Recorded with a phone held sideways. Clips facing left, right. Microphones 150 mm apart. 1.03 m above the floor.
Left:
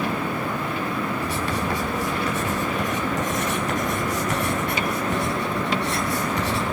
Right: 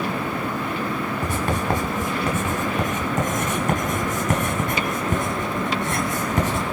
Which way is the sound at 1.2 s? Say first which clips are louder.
Right 2 dB; 55° right (ahead or behind).